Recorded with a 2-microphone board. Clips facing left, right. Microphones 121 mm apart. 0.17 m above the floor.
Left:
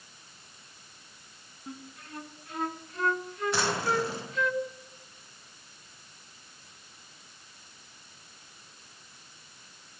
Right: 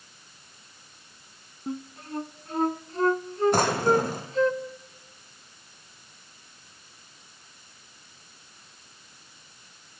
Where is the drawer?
50° right (ahead or behind), 4 m.